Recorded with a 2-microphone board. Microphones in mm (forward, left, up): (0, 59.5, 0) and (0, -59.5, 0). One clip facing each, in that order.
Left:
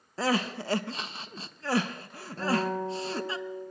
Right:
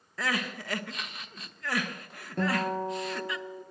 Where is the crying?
30° left (ahead or behind), 0.9 m.